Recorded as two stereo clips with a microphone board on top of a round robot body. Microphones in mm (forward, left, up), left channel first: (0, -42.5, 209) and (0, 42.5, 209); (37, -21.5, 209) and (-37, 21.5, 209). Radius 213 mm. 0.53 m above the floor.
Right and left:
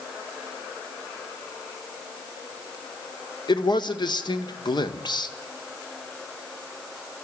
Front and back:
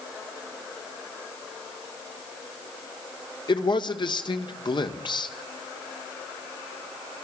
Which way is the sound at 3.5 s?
60° right.